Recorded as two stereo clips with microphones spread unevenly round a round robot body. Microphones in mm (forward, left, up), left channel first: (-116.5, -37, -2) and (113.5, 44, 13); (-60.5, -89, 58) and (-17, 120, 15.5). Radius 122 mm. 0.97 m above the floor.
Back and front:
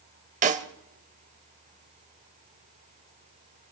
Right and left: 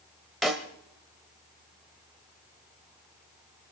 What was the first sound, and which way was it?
A snare drum, 25° right.